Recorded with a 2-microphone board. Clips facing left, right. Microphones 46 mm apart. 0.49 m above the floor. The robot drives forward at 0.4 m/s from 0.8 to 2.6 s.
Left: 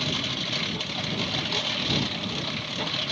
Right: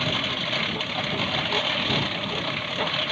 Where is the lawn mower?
25° right (ahead or behind).